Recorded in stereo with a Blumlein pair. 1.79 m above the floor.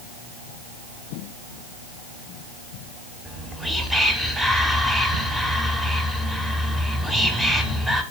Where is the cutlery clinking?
I don't hear cutlery clinking.